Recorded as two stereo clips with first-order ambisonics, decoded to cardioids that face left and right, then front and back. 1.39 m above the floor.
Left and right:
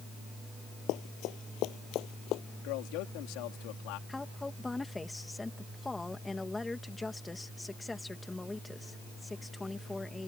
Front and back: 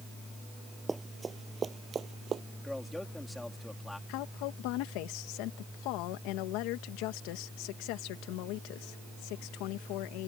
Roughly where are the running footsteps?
Left.